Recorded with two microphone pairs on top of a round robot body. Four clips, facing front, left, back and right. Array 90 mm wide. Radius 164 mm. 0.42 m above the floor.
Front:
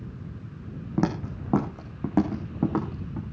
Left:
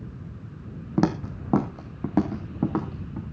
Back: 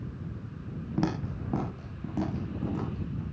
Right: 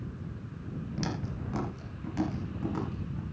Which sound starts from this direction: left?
Footsteps, at 1.0 s.